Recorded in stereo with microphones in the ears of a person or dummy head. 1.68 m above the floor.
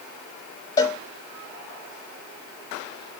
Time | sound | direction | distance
0.8 | a cowbell | 20° left (ahead or behind) | 0.7 m